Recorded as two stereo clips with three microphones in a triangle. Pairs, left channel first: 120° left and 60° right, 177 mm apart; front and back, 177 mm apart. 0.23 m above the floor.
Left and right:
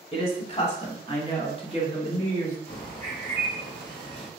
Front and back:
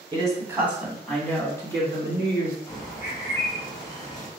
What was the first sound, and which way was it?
A woman speaking, 140° left.